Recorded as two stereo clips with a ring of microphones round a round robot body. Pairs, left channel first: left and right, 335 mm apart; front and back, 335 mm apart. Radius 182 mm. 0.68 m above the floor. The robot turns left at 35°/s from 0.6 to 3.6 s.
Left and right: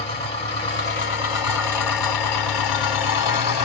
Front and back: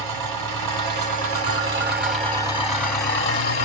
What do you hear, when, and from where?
0.0 s an engine running: 165° left, 1.7 m; by 3.7 s 60° left, 1.7 m